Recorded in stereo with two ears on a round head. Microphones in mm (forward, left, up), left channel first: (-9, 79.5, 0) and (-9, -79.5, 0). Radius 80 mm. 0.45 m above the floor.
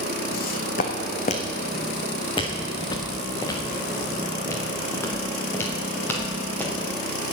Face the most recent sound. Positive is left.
turn(degrees=10)  # may be behind; listen again after turning